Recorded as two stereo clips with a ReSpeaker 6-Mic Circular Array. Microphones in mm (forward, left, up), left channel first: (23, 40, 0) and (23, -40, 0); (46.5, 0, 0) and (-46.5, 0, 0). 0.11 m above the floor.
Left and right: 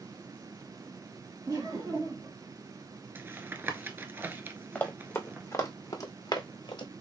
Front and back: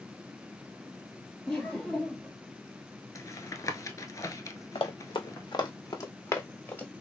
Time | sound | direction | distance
1.5 | laughter | 75° right | 2.5 m
3.1 | tapping | 35° right | 0.6 m
4.8 | running footsteps | 20° left | 1.2 m